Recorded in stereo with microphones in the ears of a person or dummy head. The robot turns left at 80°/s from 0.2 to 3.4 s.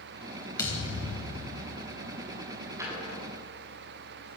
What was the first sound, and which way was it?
A thud, 155° left.